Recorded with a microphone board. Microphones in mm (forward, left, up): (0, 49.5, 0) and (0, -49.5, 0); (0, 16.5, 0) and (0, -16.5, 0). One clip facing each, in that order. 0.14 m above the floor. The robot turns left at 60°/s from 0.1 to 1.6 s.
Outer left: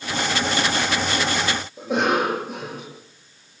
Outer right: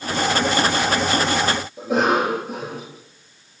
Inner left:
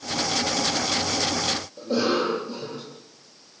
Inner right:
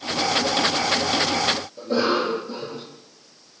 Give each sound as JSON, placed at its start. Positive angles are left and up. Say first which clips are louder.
{"t": 1.8, "sound": "a cough", "louder": "outer right 2 dB, even", "side_deg": 0, "distance_m": 5.0}